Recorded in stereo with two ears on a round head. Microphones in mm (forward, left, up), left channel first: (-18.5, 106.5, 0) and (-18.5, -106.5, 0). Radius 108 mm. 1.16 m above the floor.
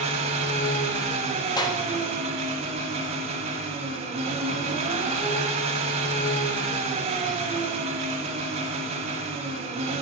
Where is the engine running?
25° right (ahead or behind), 1.7 m.